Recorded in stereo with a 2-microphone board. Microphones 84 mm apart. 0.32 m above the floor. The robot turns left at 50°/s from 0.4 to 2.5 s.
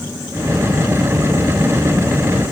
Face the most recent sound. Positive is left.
No sound to turn to.